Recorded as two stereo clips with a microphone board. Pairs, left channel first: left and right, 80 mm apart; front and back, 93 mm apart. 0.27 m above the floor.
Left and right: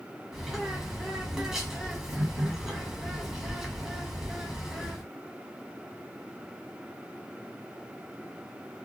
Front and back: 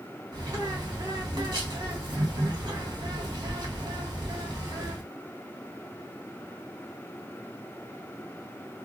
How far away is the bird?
About 1.1 m.